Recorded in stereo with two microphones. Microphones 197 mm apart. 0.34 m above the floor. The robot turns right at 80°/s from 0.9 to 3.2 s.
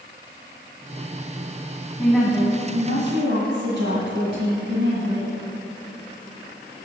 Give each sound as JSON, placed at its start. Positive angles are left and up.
{"t": 2.0, "sound": "a woman speaking", "azimuth_deg": 170, "distance_m": 2.5}